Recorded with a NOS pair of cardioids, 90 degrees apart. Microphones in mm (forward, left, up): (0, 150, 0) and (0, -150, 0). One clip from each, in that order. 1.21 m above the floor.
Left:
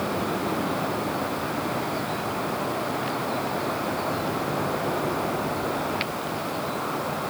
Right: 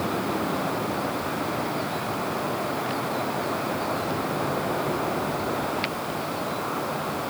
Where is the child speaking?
I don't hear a child speaking.